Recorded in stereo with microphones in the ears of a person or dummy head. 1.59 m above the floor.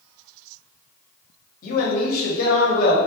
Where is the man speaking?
50° left (ahead or behind), 1.0 m.